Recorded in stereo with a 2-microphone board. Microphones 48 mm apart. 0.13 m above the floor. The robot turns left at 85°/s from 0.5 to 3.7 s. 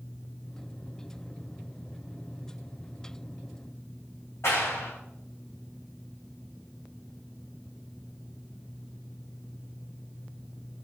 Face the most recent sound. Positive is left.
turn(degrees=65)  # may be behind; listen again after turning